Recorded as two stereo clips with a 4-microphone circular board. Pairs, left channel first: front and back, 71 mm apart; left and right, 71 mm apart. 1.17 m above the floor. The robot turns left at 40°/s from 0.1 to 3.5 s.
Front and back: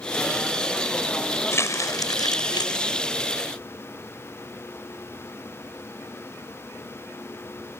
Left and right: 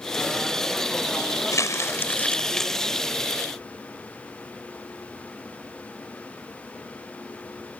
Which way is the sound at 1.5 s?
50° left.